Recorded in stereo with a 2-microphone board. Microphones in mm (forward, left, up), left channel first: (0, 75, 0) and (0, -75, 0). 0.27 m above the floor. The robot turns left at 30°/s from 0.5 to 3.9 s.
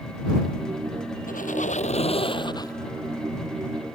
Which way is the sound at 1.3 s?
70° left.